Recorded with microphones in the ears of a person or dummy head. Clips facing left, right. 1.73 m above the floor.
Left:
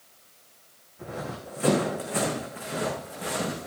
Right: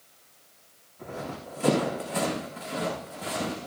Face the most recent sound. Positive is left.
turn(degrees=25)  # may be behind; listen again after turning